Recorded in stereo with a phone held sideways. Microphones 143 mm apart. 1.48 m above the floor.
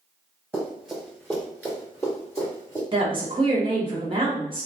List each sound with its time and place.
0.5 s running footsteps: 10° right (ahead or behind), 1.5 m; by 2.8 s 25° left (ahead or behind), 2 m
2.9 s a woman speaking: 35° right (ahead or behind), 0.8 m